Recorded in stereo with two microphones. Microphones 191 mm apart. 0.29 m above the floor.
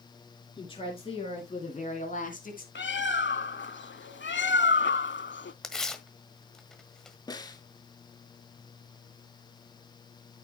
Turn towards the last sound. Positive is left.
turn(degrees=20)  # may be behind; listen again after turning